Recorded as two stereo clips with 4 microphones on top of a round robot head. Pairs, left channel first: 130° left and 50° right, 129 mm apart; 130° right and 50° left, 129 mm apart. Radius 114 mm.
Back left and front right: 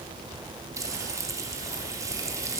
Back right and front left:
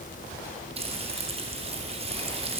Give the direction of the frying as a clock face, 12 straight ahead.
12 o'clock.